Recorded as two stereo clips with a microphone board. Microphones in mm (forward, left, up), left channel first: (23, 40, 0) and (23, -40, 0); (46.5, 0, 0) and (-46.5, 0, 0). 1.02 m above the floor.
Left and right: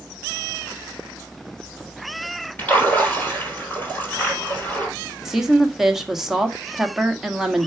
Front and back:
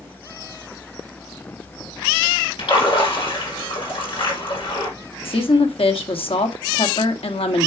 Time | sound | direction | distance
2.6 | a splash | 20° left | 5 m
5.2 | a woman speaking | 5° right | 1.4 m